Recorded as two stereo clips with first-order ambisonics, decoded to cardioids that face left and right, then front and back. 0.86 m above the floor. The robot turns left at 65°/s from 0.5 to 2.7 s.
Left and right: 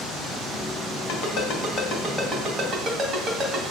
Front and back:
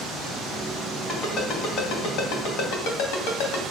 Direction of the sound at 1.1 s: 85° left.